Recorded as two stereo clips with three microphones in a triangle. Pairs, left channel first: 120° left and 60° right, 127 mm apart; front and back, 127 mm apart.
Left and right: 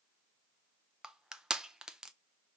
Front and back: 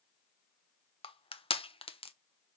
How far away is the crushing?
About 0.7 m.